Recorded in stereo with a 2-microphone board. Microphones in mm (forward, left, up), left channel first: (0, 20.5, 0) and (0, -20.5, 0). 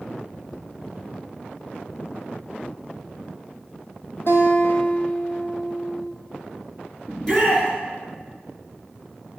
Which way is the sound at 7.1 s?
10° left (ahead or behind).